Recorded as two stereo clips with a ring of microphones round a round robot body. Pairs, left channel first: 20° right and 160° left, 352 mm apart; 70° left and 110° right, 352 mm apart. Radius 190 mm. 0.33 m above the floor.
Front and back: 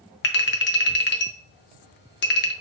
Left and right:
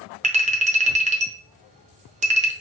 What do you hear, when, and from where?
0.2 s a clink: 55° right, 0.8 m